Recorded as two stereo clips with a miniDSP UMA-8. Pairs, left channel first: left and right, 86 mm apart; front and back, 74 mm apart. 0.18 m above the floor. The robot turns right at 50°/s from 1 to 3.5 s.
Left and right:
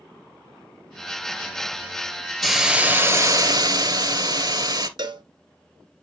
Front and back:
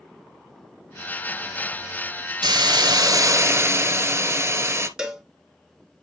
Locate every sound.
2.4 s a hiss: straight behind, 1.3 m; by 4.9 s 125° right, 1.3 m
5.0 s a cowbell: 100° right, 1.1 m